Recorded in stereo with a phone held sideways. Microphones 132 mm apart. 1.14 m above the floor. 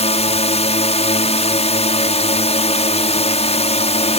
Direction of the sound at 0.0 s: 55° left (ahead or behind).